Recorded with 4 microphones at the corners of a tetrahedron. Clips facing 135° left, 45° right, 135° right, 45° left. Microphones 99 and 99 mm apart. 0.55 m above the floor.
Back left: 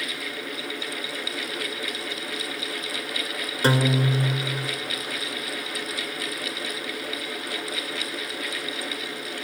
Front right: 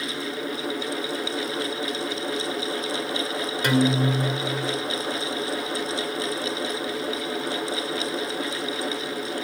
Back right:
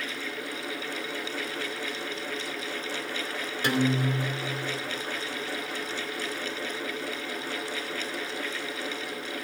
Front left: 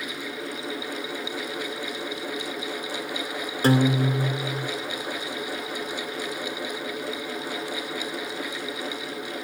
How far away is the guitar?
About 2 m.